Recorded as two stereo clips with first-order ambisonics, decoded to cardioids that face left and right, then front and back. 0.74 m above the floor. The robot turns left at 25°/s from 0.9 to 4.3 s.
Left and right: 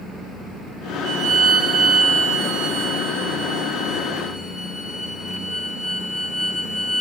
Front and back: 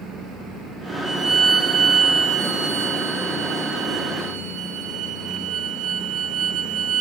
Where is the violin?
85° right, 1.8 m; by 7.0 s 165° right, 1.8 m.